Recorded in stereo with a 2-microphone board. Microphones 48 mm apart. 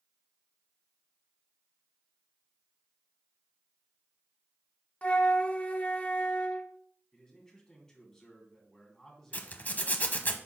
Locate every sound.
5.0 s a flute: 30° left (ahead or behind), 0.7 m
7.1 s a man speaking: 15° left (ahead or behind), 2.5 m
9.3 s a zipper: 40° left (ahead or behind), 0.9 m